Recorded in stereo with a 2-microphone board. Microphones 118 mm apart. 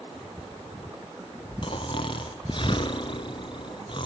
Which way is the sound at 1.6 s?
45° left (ahead or behind).